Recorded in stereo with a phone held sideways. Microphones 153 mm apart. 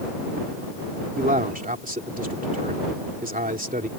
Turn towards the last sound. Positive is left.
turn(degrees=-80)